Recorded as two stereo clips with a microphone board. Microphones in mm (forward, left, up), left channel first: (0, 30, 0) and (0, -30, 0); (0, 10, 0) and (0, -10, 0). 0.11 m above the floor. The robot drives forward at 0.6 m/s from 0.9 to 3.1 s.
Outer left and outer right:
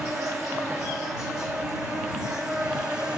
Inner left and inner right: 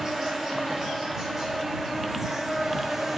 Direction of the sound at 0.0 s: 10° right (ahead or behind).